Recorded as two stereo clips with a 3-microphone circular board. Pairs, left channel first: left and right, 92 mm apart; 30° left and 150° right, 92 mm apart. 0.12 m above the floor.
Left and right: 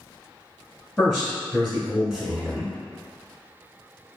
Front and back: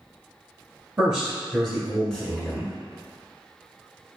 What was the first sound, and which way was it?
A man speaking, 165° left.